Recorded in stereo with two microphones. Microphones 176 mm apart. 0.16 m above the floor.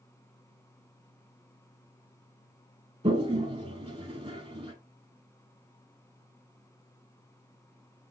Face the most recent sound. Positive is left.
turn(degrees=-35)  # may be behind; listen again after turning